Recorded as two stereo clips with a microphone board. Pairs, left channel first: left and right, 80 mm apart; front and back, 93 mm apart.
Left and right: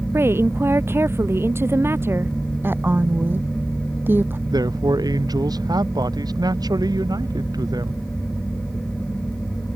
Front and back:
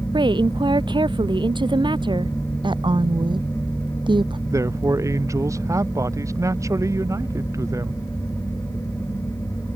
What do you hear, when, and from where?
0.1 s a woman speaking: 150° right
2.6 s a woman speaking: 155° right
4.5 s a man speaking: 125° right